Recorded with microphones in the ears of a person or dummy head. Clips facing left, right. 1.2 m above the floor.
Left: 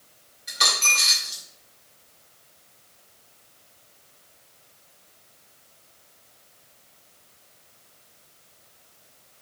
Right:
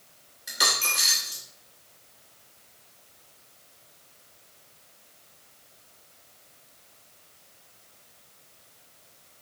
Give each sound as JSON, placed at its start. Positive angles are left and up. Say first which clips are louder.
{"t": 0.5, "sound": "a dropped coin", "louder": "left 1 dB", "side_deg": -20, "distance_m": 0.8}